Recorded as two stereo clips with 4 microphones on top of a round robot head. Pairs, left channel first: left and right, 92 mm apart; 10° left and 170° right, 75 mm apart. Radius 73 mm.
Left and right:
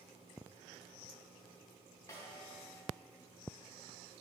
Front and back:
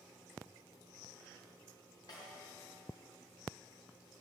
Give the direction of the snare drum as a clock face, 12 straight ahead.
11 o'clock.